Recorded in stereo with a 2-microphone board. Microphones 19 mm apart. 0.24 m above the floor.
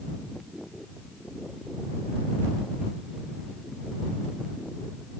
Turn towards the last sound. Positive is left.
No sound to turn to.